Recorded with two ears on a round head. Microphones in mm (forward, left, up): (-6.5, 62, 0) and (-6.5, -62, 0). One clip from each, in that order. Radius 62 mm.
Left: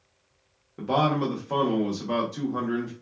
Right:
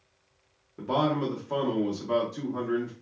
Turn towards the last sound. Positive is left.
turn(degrees=15)  # may be behind; listen again after turning